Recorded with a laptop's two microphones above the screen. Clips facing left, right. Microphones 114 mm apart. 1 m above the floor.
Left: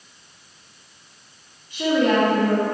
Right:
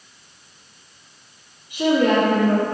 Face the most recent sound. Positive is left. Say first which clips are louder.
# right 2 dB
turn(degrees=-15)  # may be behind; listen again after turning